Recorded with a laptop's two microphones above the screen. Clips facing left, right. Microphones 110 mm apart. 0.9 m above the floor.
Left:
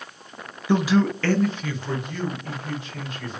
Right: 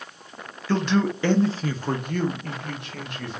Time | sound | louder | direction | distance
0.7 | a man speaking | left 2 dB | 20° left (ahead or behind) | 0.5 m